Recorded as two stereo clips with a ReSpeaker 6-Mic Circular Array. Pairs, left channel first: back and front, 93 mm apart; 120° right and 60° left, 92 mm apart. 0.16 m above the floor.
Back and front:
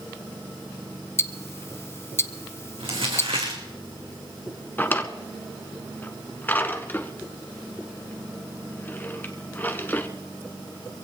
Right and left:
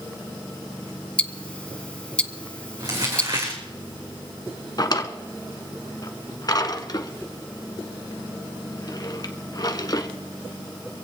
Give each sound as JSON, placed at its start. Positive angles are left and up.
{"t": 1.2, "sound": "ticking", "azimuth_deg": 180, "distance_m": 0.6}
{"t": 2.8, "sound": "crumpling", "azimuth_deg": 15, "distance_m": 4.0}
{"t": 4.8, "sound": "a drawer", "azimuth_deg": -120, "distance_m": 1.2}